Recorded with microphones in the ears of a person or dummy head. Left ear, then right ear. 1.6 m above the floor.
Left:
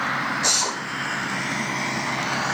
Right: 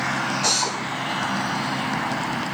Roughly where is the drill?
Centre.